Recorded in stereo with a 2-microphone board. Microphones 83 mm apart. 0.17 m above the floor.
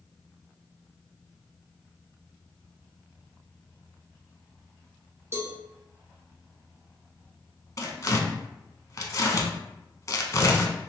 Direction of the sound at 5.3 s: 35° right (ahead or behind).